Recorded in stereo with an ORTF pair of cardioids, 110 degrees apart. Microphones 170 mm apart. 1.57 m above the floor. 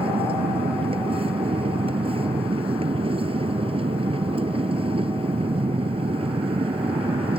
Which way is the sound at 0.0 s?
35° right.